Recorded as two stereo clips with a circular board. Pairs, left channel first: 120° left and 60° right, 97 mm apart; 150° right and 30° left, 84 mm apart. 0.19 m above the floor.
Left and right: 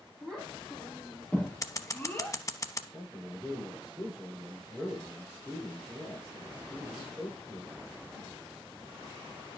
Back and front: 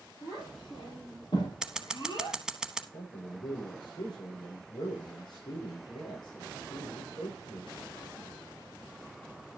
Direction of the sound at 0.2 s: 155° right.